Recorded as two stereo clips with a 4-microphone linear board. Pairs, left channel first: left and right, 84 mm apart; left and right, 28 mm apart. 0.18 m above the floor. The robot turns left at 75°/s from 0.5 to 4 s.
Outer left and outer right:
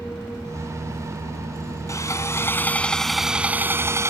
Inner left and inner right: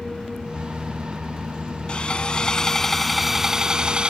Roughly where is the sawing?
Left.